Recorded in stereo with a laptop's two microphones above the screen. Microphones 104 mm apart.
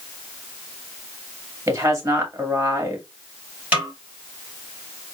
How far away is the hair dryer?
I don't hear a hair dryer.